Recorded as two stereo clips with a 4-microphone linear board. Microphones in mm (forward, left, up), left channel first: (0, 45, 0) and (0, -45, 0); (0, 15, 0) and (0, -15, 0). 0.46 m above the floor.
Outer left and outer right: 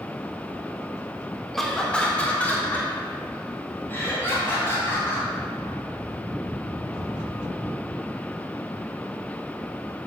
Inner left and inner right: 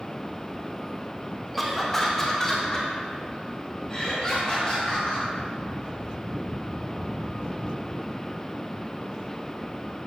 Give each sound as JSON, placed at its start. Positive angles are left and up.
{"t": 1.5, "sound": "laughter", "side_deg": 5, "distance_m": 0.8}